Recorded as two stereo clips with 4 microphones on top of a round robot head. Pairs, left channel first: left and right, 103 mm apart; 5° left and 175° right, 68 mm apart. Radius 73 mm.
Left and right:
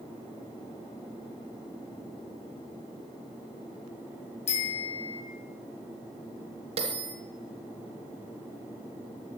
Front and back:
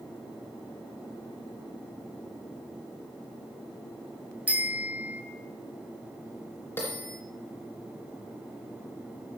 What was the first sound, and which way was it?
A bicycle bell, 115° left.